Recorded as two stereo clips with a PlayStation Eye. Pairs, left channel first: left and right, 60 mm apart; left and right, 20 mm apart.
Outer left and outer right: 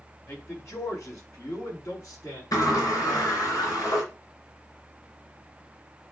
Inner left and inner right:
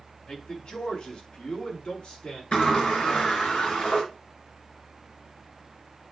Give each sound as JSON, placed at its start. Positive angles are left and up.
{"t": 0.3, "sound": "a man speaking", "side_deg": 55, "distance_m": 3.5}
{"t": 2.5, "sound": "a sliding door", "side_deg": 80, "distance_m": 4.0}